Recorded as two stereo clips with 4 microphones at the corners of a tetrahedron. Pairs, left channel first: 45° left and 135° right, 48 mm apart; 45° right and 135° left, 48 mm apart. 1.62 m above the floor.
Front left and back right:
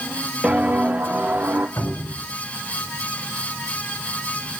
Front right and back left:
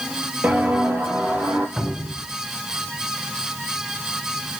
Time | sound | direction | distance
0.4 | footsteps | 170° left | 2.5 m
1.8 | a cupboard door | 50° left | 8 m